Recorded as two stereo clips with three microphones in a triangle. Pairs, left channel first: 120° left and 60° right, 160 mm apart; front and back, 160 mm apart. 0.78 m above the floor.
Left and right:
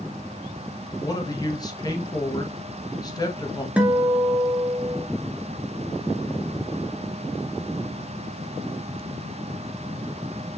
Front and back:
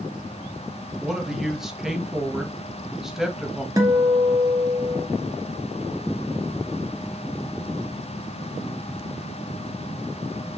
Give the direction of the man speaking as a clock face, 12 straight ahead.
9 o'clock.